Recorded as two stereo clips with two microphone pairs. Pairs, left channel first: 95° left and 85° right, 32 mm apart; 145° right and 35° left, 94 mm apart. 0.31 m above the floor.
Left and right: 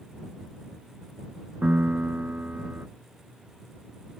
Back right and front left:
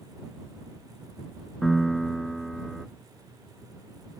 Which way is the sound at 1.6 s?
55° right.